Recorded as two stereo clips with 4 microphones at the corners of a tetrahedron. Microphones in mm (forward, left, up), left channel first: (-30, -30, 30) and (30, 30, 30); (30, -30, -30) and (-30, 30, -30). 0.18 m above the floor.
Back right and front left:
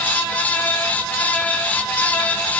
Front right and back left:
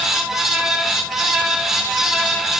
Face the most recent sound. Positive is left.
No sound to turn to.